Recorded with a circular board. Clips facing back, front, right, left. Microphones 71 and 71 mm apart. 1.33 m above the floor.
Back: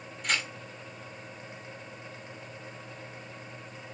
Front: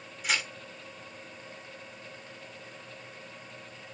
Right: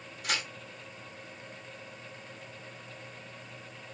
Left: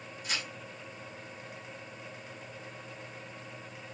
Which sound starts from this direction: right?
Tearing paper, at 0.2 s.